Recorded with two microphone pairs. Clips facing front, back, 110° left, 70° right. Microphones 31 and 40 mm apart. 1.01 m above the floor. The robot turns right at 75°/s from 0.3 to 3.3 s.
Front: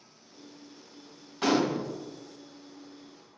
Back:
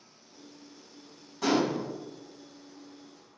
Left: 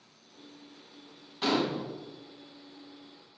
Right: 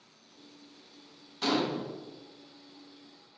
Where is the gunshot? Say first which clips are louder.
Front 1 dB, left 1 dB; 30° left, 0.6 m; by 1.8 s 60° left, 0.6 m.